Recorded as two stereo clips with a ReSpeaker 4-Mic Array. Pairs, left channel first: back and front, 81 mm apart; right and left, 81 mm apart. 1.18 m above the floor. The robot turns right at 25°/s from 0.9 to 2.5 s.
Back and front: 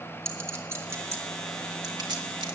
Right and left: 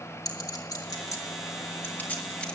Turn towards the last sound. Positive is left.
turn(degrees=-15)